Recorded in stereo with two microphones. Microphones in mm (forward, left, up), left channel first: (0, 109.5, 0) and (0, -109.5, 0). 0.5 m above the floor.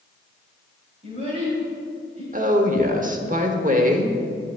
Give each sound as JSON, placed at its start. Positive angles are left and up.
{"t": 1.0, "sound": "a child speaking", "side_deg": -30, "distance_m": 2.5}
{"t": 2.3, "sound": "a woman speaking", "side_deg": -35, "distance_m": 1.1}